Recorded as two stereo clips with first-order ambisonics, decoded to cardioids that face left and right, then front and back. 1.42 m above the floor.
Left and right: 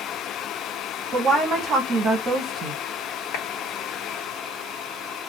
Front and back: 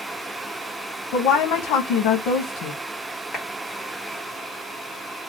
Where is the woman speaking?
25° right, 0.7 m.